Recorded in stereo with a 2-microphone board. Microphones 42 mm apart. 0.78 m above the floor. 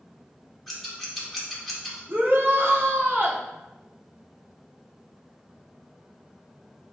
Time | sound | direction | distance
0.7 | scissors | 5° left (ahead or behind) | 2 m
2.1 | a shout | 65° right (ahead or behind) | 1.6 m